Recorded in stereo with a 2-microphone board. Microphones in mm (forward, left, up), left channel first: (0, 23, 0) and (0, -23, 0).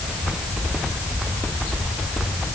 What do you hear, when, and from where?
Only background noise.